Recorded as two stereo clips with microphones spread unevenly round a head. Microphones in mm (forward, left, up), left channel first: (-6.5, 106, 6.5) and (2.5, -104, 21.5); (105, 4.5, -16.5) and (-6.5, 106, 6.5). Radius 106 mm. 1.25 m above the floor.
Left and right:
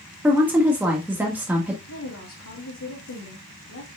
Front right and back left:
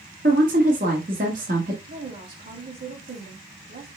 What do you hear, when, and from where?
0.2 s a woman speaking: 170° right, 1.5 m
1.9 s a woman speaking: 110° left, 2.5 m